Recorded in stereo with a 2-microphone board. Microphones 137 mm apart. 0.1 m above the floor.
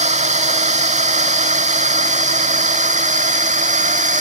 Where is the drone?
60° right (ahead or behind); by 4.2 s 65° right (ahead or behind).